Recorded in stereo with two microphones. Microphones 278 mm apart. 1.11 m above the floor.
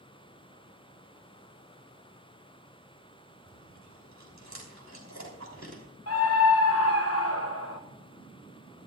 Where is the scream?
60° left (ahead or behind), 0.9 m.